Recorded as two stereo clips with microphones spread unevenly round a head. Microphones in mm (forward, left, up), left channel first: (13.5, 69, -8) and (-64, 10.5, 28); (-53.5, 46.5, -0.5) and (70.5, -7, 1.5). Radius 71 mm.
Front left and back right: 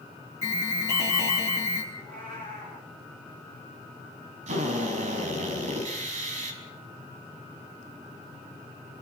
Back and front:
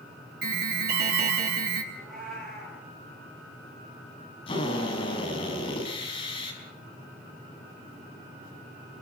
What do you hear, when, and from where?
0.4 s an alarm: 20° right, 4 m
1.9 s a cat meowing: 115° right, 10 m
4.5 s a drill: 145° right, 5.5 m